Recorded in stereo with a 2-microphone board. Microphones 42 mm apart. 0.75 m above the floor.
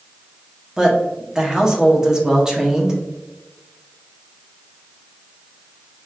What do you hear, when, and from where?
0.8 s a woman speaking: 15° right (ahead or behind), 0.9 m